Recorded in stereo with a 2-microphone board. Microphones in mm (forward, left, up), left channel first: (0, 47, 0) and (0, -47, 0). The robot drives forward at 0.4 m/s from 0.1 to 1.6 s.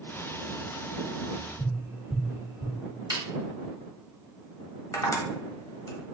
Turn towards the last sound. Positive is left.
turn(degrees=40)  # may be behind; listen again after turning